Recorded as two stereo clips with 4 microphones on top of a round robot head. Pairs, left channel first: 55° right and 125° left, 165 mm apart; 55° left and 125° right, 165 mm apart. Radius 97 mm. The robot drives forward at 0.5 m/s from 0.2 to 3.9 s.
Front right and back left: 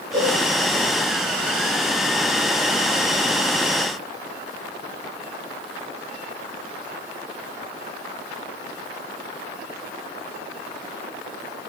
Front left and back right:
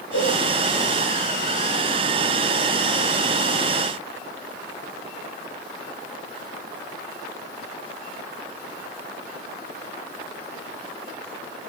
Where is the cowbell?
60° left, 5.5 m.